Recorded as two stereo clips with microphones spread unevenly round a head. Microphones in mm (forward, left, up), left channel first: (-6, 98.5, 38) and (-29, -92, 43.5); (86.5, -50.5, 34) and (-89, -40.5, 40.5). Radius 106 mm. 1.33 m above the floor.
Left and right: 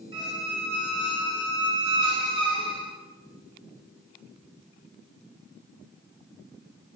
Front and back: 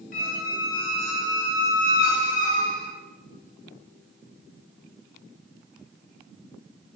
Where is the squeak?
35° right, 0.7 m.